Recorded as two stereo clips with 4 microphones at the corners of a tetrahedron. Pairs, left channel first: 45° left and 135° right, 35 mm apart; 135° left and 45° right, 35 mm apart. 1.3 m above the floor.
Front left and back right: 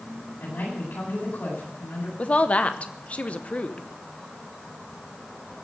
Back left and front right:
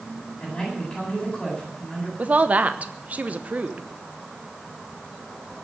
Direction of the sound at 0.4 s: 60° left.